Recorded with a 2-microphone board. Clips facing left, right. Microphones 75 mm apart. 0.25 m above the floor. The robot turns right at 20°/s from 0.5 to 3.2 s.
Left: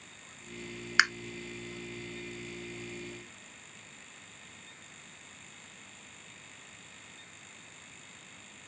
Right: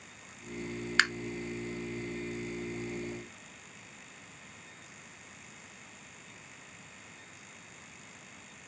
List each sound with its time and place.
1.0 s tapping: 10° left (ahead or behind), 0.8 m; by 1.1 s 15° left (ahead or behind), 0.8 m